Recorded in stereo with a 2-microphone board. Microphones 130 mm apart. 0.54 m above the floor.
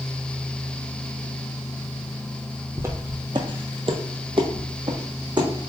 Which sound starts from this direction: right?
Footsteps, at 2.8 s.